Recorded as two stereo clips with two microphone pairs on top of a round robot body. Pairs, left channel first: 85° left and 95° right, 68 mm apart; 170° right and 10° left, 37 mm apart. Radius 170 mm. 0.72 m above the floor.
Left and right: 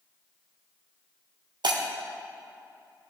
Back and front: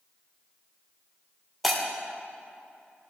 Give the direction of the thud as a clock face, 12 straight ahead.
No thud in this recording.